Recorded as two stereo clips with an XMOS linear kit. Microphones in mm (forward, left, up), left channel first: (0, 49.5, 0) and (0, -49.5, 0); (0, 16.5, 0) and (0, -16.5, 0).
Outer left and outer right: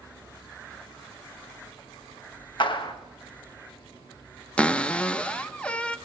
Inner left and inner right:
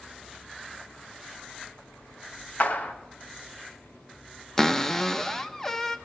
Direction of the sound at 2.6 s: 55° left (ahead or behind).